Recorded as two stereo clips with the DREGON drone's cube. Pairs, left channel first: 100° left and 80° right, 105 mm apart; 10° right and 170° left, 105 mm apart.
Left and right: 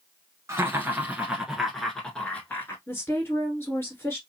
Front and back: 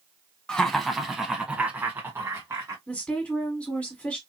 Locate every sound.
0.5 s laughter: 85° right, 1.2 m; by 2.8 s 150° left, 1.3 m
2.9 s a woman speaking: 60° left, 1.6 m